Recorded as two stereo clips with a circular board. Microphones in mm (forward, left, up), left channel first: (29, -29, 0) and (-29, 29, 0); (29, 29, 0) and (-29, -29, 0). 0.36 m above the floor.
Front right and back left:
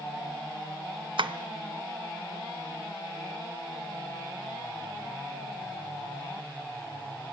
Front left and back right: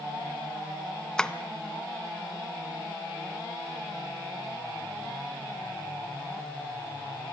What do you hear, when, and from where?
1.2 s tapping: 125° left, 0.8 m